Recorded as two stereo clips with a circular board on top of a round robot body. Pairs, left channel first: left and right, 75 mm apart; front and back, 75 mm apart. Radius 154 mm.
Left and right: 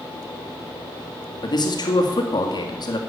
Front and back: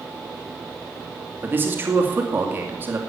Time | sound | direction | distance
1.4 | a man speaking | 115° left | 2.5 m